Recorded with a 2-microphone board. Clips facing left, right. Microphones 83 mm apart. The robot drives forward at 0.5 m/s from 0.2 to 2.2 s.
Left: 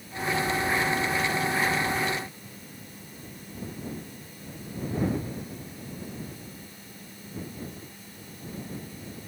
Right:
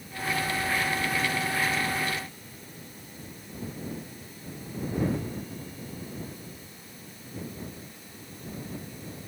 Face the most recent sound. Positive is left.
No sound to turn to.